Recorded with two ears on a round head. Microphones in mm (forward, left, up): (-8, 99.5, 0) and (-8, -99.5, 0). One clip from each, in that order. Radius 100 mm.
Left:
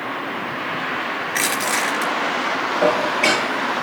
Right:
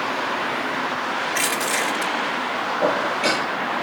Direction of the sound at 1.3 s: 10° left (ahead or behind).